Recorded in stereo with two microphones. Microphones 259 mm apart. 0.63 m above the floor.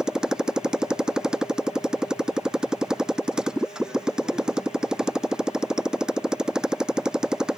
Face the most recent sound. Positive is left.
turn(degrees=0)  # may be behind; listen again after turning